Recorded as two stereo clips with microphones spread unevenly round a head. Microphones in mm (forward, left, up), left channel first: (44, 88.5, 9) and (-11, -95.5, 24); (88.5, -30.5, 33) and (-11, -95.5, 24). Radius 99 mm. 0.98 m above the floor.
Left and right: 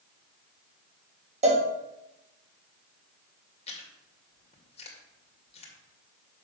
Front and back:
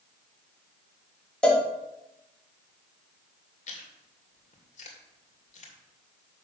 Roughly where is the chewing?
Ahead.